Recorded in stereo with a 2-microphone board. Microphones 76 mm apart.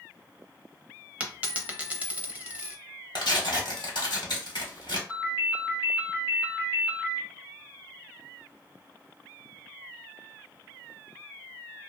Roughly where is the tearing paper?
Left.